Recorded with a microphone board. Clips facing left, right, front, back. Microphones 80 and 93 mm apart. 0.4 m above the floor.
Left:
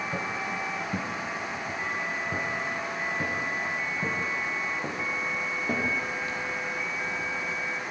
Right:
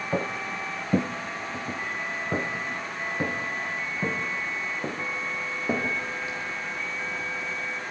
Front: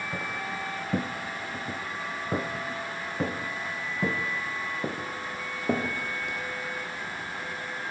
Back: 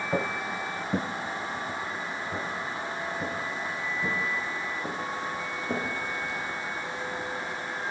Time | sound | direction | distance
0.1 | footsteps | 135° right | 1.5 m